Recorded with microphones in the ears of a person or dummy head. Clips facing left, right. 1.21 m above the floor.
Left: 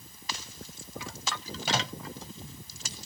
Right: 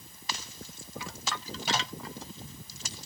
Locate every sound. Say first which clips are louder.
1.7 s a microwave: left 2 dB; 70° left (ahead or behind)